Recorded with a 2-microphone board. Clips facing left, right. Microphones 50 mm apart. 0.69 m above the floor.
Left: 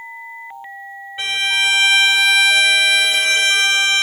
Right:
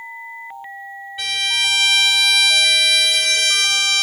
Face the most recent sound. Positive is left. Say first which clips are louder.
# left 3 dB
turn(degrees=25)  # may be behind; listen again after turning